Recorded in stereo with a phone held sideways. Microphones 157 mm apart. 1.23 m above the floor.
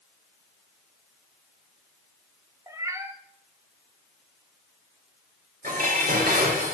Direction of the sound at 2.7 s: 15° right (ahead or behind).